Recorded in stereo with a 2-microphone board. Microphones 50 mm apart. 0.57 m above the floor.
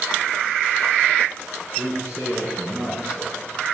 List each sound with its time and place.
1.8 s a man speaking: 45° right (ahead or behind), 6.5 m